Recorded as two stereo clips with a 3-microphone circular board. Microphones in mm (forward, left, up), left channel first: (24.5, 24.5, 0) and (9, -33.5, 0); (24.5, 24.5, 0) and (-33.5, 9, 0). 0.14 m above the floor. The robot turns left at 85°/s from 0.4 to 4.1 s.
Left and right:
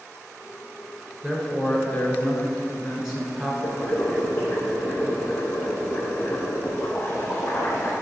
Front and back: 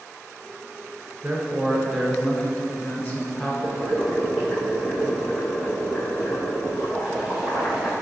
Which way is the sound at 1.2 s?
145° left.